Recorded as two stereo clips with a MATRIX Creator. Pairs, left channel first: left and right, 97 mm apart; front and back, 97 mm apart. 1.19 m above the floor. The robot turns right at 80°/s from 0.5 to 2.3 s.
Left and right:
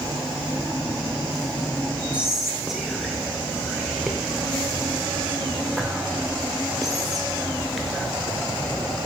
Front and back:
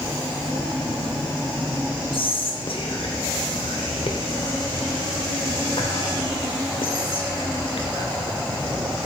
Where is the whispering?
15° right, 0.5 m; by 8.1 s straight ahead, 0.5 m.